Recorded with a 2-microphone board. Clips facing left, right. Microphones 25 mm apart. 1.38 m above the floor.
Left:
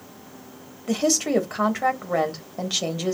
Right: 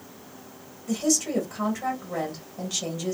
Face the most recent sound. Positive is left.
turn(degrees=50)  # may be behind; listen again after turning